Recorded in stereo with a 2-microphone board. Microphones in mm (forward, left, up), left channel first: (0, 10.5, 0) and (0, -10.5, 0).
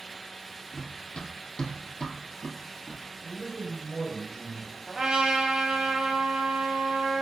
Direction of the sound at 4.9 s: 35° right (ahead or behind).